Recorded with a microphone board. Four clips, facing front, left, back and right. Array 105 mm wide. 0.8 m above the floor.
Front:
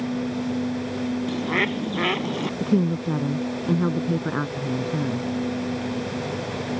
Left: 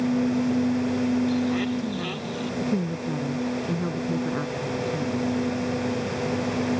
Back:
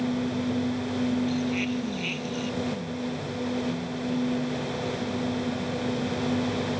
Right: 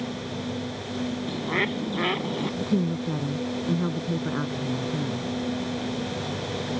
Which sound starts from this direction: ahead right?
A bird, at 1.3 s.